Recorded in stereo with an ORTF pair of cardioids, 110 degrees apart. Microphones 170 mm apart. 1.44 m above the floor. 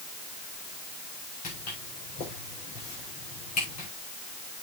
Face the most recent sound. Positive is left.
turn(degrees=60)